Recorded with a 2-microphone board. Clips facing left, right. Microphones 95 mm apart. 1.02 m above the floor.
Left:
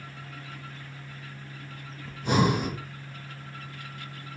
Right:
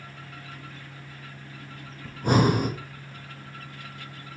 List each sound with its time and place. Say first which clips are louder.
2.0 s breathing: right 3 dB; 50° right (ahead or behind), 0.8 m